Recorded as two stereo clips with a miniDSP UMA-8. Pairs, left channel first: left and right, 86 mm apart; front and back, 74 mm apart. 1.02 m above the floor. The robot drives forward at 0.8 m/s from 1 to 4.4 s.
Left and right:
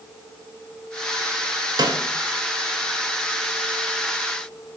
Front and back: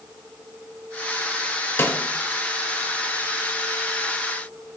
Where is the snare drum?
55° right, 0.6 m; by 2.0 s 70° right, 0.5 m.